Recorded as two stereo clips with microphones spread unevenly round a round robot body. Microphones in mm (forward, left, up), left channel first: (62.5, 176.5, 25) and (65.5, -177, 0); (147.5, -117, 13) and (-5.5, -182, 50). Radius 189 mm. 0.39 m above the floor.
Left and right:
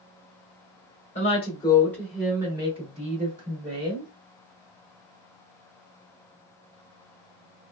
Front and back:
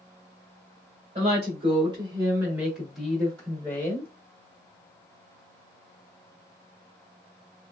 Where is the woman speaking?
155° left, 1.1 m; by 4.1 s 40° right, 1.5 m.